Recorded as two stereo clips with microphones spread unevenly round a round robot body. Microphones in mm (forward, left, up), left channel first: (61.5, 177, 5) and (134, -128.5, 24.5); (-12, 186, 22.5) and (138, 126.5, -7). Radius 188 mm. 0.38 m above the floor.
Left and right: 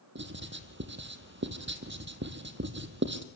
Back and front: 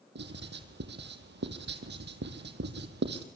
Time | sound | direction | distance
0.1 | writing | 20° right | 2 m